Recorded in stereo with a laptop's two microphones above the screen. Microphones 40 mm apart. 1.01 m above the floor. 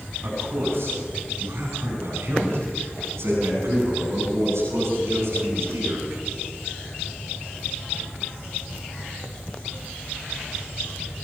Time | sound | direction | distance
0.2 | a man speaking | 65° right (ahead or behind) | 10 m